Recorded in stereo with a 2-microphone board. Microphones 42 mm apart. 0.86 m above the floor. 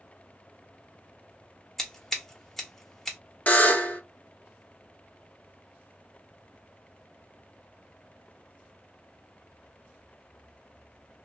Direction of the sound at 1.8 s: 10° left (ahead or behind).